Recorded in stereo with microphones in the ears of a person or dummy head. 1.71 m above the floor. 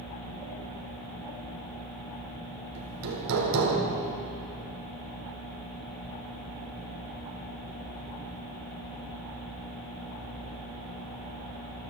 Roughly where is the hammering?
Right.